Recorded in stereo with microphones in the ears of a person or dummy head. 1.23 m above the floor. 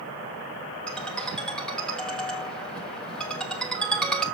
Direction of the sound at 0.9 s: 5° left (ahead or behind).